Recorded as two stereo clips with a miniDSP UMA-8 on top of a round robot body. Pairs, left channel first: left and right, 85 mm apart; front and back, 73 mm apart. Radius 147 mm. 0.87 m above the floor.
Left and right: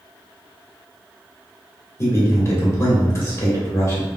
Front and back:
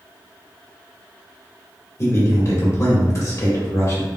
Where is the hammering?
No hammering in this recording.